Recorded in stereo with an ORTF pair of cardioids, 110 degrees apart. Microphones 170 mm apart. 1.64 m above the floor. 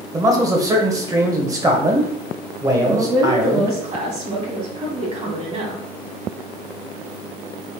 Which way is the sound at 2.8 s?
40° right.